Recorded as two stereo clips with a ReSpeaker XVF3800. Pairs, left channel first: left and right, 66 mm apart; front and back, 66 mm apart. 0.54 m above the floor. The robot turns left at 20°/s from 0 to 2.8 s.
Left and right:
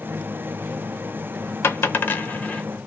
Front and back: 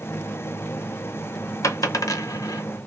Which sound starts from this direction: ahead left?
A dropped coin, at 1.6 s.